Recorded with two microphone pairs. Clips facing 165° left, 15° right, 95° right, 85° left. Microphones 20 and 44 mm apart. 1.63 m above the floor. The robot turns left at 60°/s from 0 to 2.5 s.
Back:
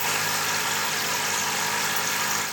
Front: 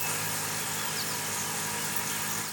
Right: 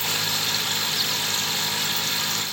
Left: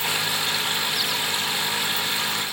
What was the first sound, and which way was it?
Only background noise.